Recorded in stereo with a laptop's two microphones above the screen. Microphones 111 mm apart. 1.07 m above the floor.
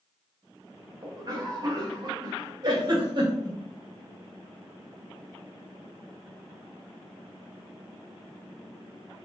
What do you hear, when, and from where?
1.0 s a cough: 40° right (ahead or behind), 0.7 m
2.6 s a giggle: 45° right (ahead or behind), 1.0 m